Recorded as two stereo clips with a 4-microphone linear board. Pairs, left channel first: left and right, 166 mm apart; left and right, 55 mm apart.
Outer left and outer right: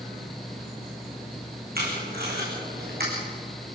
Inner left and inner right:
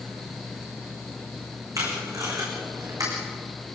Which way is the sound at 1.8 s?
70° right (ahead or behind).